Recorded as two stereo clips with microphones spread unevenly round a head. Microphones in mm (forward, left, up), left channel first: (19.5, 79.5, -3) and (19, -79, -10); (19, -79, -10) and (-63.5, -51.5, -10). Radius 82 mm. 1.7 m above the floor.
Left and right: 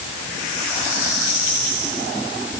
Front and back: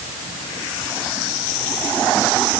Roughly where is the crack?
No crack in this recording.